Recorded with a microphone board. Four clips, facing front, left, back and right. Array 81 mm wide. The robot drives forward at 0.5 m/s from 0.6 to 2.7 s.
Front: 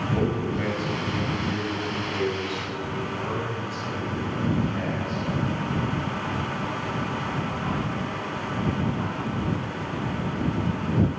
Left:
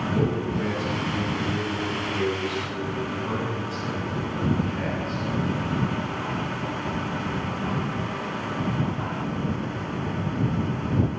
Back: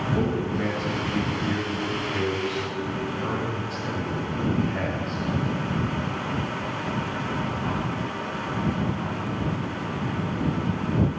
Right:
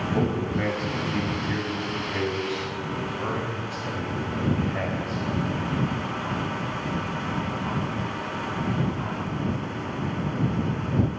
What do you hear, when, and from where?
0.1 s a man speaking: 75° right, 2 m; by 5.2 s 105° right, 2 m